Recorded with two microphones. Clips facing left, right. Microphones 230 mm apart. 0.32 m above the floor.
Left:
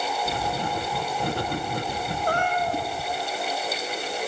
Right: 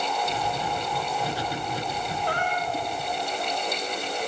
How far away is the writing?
About 5 m.